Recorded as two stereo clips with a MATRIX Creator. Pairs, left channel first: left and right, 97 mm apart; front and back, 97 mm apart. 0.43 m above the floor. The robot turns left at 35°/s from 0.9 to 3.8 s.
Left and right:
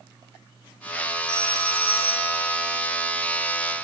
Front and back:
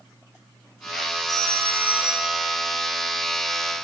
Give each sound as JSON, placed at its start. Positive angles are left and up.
{"t": 1.3, "sound": "a phone ringing", "azimuth_deg": 130, "distance_m": 2.5}